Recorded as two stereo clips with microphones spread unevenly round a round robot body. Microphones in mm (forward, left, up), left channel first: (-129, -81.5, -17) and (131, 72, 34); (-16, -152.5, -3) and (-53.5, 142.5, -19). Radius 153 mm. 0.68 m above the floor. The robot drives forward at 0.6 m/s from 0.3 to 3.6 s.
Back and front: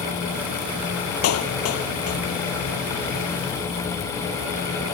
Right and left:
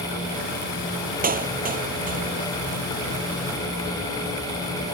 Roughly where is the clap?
Behind.